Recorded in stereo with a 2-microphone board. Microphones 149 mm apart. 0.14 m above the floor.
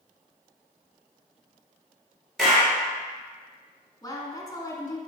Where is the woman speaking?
25° left (ahead or behind), 1.2 m.